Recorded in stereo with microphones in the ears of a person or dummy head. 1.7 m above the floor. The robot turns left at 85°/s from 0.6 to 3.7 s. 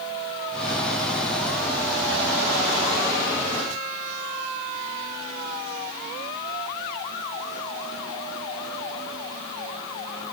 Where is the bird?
I don't hear a bird.